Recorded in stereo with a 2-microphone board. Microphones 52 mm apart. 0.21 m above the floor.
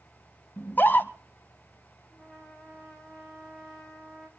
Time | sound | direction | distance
0.6 | a scream | 35° left (ahead or behind) | 1.3 m
2.1 | a trumpet | 5° left (ahead or behind) | 2.5 m